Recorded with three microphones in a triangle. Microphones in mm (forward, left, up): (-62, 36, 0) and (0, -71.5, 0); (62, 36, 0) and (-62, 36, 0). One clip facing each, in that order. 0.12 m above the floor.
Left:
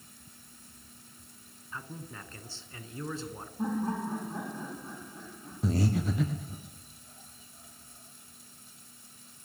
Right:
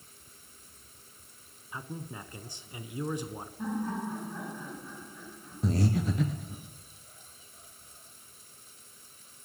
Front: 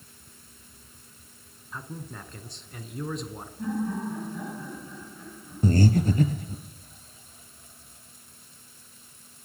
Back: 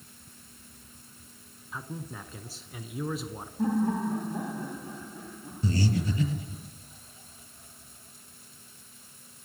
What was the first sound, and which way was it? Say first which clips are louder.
A man speaking: right 2 dB, even; 100° right.